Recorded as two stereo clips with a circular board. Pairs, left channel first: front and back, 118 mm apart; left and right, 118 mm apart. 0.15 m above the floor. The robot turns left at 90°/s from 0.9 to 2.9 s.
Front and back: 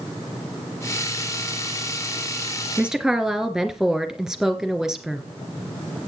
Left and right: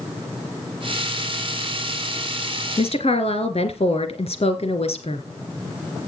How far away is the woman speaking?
About 1.9 m.